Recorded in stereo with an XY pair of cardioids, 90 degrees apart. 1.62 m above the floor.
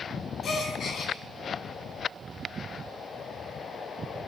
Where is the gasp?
60° left, 4.5 m.